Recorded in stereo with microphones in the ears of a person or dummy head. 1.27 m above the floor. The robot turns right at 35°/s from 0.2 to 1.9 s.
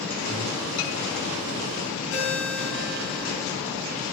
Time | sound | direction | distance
0.3 | breathing | 10° right (ahead or behind) | 1.7 m
2.1 | a ringtone | 65° left (ahead or behind) | 3.5 m